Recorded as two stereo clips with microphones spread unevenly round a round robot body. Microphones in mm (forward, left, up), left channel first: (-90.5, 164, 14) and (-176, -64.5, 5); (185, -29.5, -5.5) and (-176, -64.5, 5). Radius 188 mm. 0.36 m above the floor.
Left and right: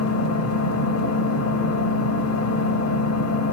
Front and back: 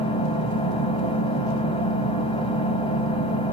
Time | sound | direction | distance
0.0 | an engine running | 80° left | 1.2 m